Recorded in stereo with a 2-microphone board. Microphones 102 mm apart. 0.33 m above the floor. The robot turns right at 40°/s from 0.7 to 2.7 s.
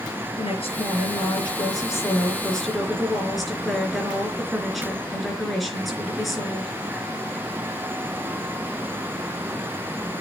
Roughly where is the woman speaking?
Left.